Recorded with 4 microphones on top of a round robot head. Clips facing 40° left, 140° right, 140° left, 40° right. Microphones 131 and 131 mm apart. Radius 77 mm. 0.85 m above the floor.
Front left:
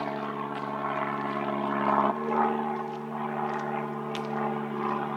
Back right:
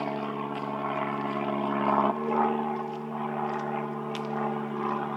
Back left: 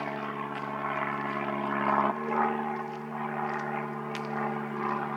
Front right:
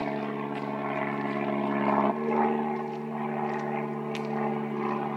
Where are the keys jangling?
No keys jangling in this recording.